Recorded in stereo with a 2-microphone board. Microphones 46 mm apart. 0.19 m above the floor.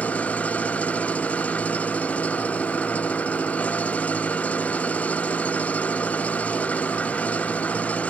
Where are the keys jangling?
I don't hear keys jangling.